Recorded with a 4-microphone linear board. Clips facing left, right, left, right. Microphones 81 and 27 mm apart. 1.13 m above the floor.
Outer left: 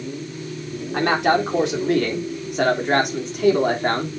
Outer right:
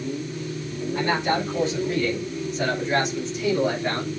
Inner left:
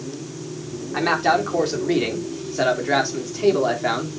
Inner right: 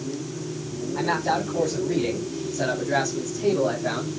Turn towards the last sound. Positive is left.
turn(degrees=45)  # may be behind; listen again after turning